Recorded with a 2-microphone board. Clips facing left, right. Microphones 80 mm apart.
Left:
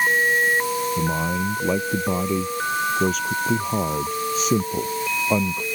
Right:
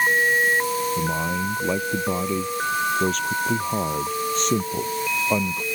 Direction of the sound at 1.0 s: 5° left (ahead or behind).